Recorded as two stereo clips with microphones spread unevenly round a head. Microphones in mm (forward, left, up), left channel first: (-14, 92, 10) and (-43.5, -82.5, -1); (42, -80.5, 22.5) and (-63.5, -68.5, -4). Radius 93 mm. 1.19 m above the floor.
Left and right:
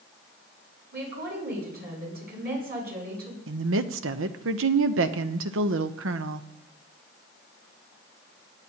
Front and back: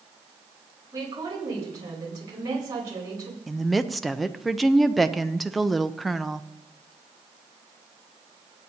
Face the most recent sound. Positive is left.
turn(degrees=-100)